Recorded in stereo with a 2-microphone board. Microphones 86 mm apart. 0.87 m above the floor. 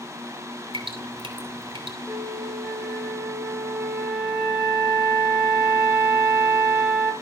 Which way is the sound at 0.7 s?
85° right.